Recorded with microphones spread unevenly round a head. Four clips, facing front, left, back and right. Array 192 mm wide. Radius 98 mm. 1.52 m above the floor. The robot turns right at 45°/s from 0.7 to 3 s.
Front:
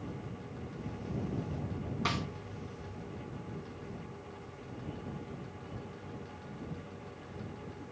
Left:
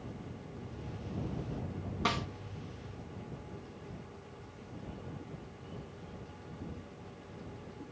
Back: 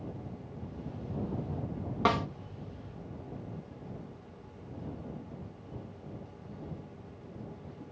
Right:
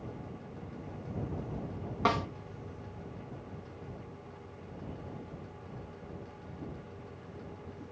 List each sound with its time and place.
2.0 s a snare drum: 150° right; by 2.3 s 140° right